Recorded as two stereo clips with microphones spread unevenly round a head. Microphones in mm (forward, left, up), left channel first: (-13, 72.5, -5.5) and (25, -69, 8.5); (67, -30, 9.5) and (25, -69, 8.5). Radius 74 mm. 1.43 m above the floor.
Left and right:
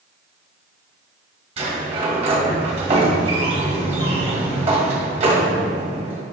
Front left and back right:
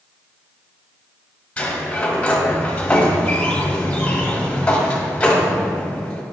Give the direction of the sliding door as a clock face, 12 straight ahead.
1 o'clock.